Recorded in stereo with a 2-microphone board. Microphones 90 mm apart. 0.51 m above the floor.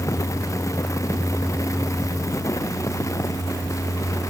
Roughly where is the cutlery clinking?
I don't hear cutlery clinking.